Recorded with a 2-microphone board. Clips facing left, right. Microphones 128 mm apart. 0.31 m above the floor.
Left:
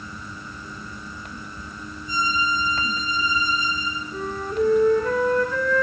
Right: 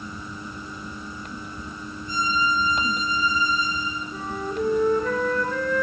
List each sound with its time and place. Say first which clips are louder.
2.1 s a violin: even; 55° right (ahead or behind), 10 m
4.1 s a flute: left 4 dB; centre (ahead or behind), 8 m